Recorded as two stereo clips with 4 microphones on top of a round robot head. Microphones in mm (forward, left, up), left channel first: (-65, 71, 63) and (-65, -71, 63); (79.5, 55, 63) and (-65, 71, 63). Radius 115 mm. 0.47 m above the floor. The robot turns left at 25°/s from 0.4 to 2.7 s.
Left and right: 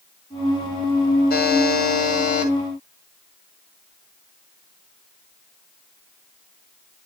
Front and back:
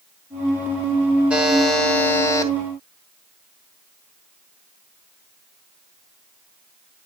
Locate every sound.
1.3 s a buzzer: 90° left, 2.5 m; by 2.5 s 60° left, 2.5 m